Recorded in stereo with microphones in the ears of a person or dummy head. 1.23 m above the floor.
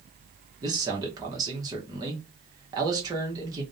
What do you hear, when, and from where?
0.6 s a man speaking: 20° right (ahead or behind), 0.7 m